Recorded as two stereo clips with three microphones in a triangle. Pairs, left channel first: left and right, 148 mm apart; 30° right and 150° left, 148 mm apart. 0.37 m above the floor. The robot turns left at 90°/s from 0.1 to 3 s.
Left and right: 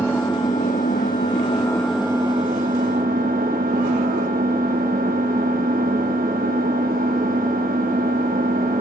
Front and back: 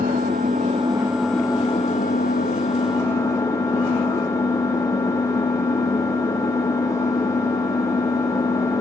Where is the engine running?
160° left, 6.5 m; by 8.8 s 100° right, 6.5 m.